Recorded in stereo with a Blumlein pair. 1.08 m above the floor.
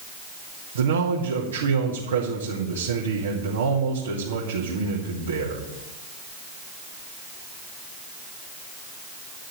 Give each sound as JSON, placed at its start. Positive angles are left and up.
{"t": 0.8, "sound": "a man speaking", "azimuth_deg": -65, "distance_m": 2.5}